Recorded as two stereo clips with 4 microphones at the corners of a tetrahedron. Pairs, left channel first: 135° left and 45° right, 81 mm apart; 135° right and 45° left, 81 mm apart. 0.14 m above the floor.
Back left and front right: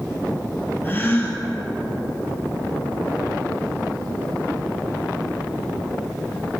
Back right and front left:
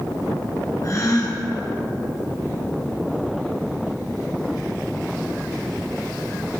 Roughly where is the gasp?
Behind.